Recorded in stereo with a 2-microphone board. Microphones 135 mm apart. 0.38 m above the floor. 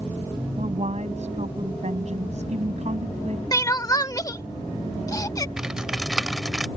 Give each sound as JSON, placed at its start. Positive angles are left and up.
{"t": 0.6, "sound": "a woman speaking", "side_deg": -60}
{"t": 3.5, "sound": "crying", "side_deg": 25}
{"t": 5.6, "sound": "typing on a keyboard", "side_deg": -5}